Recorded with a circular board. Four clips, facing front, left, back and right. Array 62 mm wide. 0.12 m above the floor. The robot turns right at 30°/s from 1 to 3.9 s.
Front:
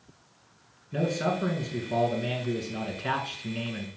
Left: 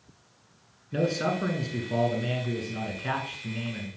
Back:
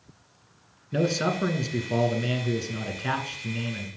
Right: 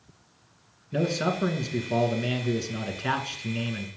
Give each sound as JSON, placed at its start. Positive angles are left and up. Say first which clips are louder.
{"t": 0.9, "sound": "a man speaking", "louder": "even, back 2 dB", "azimuth_deg": -175, "distance_m": 1.2}